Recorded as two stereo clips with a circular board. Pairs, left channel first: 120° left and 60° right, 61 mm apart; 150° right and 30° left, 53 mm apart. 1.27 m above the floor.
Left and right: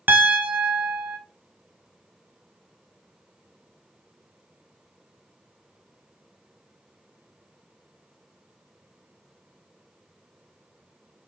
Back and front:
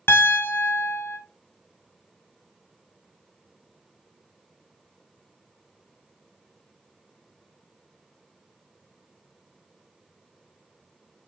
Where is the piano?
115° right, 0.7 m.